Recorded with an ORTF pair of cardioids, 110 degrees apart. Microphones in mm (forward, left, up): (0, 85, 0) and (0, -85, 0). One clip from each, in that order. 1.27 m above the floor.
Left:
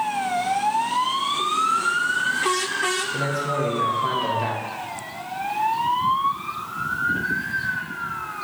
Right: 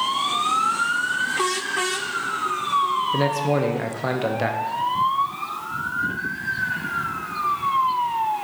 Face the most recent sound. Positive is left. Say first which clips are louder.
# right 3 dB
turn(degrees=-40)